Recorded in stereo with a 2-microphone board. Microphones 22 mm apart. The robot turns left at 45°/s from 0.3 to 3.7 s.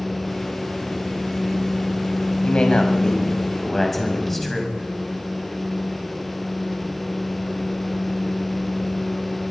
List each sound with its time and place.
2.4 s a man speaking: 70° left, 5.5 m; by 4.8 s 10° left, 5.5 m